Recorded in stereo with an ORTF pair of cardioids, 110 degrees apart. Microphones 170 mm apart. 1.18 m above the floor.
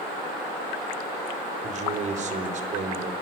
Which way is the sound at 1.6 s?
45° right.